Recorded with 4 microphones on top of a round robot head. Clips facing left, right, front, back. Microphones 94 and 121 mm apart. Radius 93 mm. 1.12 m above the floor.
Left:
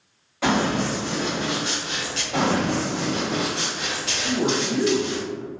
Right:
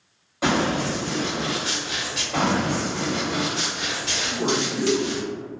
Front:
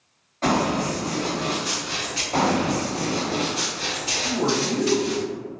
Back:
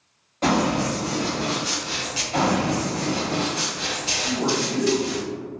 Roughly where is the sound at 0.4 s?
Behind right.